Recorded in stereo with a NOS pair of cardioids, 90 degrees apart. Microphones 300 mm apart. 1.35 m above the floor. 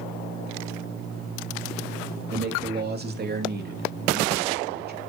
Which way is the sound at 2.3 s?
35° right.